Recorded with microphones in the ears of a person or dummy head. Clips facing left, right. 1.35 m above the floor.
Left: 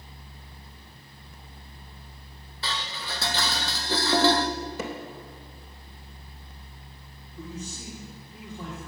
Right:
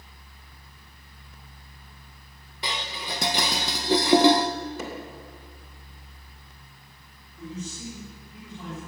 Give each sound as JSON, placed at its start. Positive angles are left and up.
{"t": 2.6, "sound": "dishes clattering", "side_deg": -20, "distance_m": 0.6}
{"t": 4.8, "sound": "hammering", "side_deg": 65, "distance_m": 3.0}
{"t": 7.4, "sound": "a man speaking", "side_deg": 45, "distance_m": 4.5}